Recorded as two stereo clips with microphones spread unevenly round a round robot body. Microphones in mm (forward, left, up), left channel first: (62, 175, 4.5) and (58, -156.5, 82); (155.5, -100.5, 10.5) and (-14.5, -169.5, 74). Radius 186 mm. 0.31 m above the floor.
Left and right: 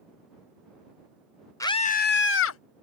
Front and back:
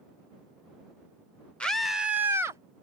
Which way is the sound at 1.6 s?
50° left.